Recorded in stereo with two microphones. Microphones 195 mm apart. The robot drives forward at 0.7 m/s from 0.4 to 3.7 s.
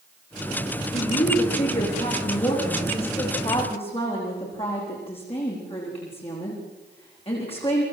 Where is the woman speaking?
40° left (ahead or behind), 9.5 m; by 7.8 s 30° left (ahead or behind), 11 m.